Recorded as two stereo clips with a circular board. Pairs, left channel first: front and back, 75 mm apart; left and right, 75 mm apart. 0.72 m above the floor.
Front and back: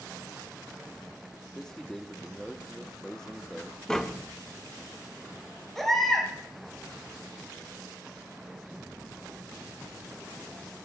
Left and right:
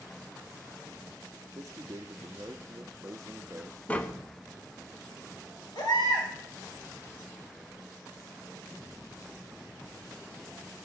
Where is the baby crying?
85° left, 2.5 m.